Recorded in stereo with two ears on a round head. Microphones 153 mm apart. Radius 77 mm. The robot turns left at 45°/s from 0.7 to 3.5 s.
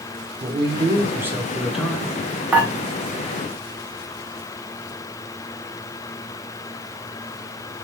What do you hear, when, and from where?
0.4 s a man speaking: 130° right, 0.8 m; by 2.1 s 170° left, 0.8 m
2.5 s dishes clattering: 10° right (ahead or behind), 0.7 m; by 2.7 s 15° right (ahead or behind), 0.7 m